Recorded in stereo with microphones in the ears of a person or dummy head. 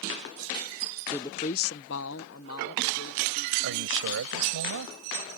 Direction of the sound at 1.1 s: 10° left (ahead or behind).